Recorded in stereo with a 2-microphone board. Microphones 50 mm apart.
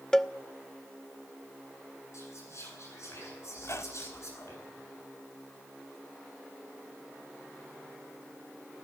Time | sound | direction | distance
0.1 | a cowbell | 10° left (ahead or behind) | 0.6 m
2.1 | whispering | 65° left (ahead or behind) | 9 m
3.6 | a squeak | 65° left (ahead or behind) | 1.4 m